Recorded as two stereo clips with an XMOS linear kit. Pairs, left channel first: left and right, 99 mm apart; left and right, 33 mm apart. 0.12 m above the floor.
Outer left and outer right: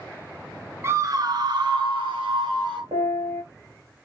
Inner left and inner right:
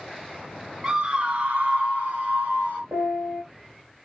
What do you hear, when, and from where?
0.8 s a scream: 25° right (ahead or behind), 1.4 m; by 2.8 s 55° right (ahead or behind), 2.5 m
2.9 s a piano: 80° right, 5.5 m